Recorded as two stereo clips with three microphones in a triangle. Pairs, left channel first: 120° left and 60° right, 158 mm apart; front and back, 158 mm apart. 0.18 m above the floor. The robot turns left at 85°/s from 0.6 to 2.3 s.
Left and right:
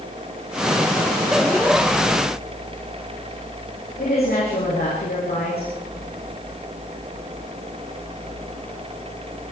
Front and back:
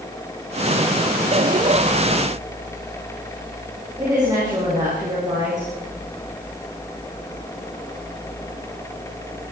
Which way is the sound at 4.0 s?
115° left.